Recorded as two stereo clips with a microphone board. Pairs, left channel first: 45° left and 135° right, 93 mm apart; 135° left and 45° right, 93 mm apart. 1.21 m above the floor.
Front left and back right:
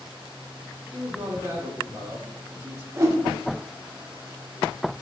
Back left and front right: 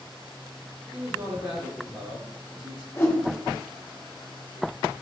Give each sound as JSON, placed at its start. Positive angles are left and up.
{"t": 0.9, "sound": "a man speaking", "azimuth_deg": -75, "distance_m": 1.6}
{"t": 3.0, "sound": "a whoosh", "azimuth_deg": -175, "distance_m": 0.7}